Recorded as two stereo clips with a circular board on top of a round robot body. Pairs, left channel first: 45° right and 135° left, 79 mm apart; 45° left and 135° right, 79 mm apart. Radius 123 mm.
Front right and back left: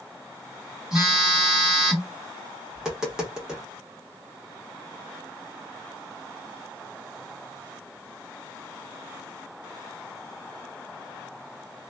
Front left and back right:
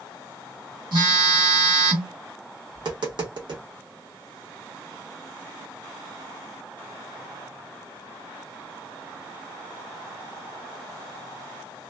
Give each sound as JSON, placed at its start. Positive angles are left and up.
{"t": 0.9, "sound": "a phone buzzing", "azimuth_deg": -145, "distance_m": 1.5}
{"t": 2.7, "sound": "tapping", "azimuth_deg": -145, "distance_m": 1.4}